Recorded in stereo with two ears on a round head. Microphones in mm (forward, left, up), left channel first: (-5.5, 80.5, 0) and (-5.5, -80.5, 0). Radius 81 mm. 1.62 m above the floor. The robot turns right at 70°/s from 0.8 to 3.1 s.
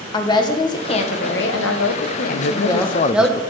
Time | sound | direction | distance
0.1 | a woman speaking | 25° left | 1.4 m
2.3 | a man speaking | 90° left | 0.7 m